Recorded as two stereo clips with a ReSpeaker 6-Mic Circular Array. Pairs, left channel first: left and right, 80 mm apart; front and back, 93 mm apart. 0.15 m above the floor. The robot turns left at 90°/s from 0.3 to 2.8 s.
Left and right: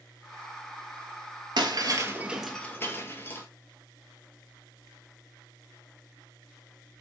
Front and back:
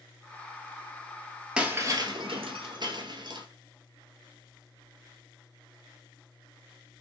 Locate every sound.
1.6 s breaking glass: 100° right, 1.0 m; by 3.5 s 150° left, 1.0 m